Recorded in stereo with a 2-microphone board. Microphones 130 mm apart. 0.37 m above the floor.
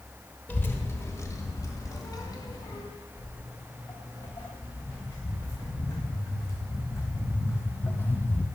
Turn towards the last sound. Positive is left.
turn(degrees=15)  # may be behind; listen again after turning